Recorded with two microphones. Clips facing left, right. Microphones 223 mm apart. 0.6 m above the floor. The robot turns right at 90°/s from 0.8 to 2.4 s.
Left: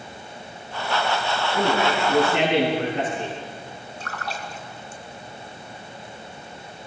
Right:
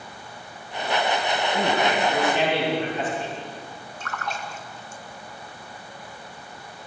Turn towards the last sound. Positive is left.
turn(degrees=35)  # may be behind; listen again after turning